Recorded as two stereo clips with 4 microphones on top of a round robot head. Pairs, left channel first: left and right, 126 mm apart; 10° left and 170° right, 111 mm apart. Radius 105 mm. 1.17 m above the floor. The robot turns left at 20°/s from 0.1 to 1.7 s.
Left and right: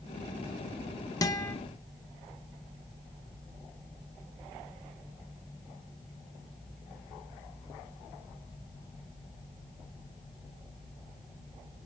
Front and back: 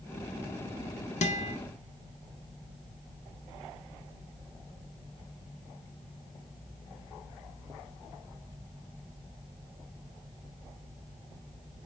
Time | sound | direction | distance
1.2 | a guitar | 30° left | 0.6 m